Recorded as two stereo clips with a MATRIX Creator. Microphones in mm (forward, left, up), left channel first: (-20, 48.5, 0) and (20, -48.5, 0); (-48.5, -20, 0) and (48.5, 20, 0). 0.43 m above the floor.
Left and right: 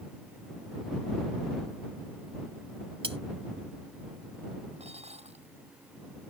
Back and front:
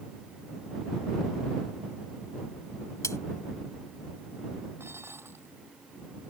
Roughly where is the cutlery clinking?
Right.